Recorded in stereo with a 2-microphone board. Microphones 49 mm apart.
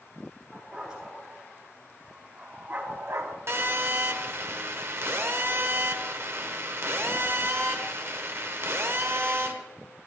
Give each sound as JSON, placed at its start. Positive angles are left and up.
{"t": 0.5, "sound": "a dog barking", "side_deg": -5, "distance_m": 4.5}
{"t": 3.5, "sound": "a phone buzzing", "side_deg": -60, "distance_m": 1.1}